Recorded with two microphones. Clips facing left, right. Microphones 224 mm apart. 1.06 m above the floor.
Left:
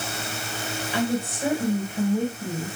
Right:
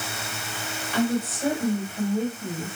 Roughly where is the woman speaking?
Centre.